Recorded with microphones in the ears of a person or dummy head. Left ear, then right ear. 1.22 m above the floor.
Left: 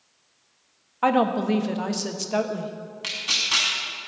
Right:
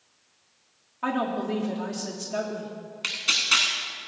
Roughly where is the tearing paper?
Centre.